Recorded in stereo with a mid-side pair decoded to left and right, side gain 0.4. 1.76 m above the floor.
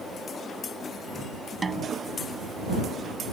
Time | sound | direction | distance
1.6 | a snare drum | 30° right | ?